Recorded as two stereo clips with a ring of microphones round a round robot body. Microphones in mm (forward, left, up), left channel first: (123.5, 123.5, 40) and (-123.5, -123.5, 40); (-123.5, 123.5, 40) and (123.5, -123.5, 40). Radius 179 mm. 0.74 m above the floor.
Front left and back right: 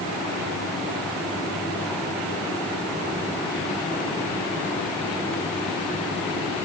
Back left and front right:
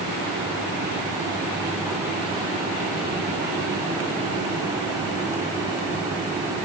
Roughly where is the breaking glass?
I don't hear breaking glass.